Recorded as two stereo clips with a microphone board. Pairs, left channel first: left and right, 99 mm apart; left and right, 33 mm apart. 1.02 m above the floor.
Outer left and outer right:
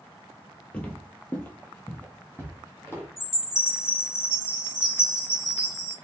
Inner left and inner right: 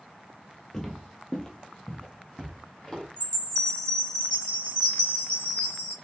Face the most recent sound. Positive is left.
turn(degrees=30)  # may be behind; listen again after turning